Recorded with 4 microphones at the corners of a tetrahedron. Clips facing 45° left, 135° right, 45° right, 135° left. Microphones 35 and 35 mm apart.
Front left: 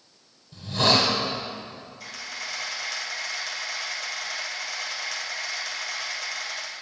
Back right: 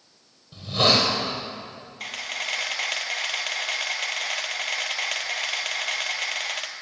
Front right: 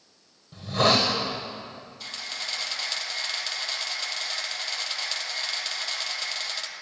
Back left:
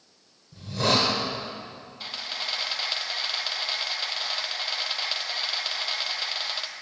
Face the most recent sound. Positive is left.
turn(degrees=-155)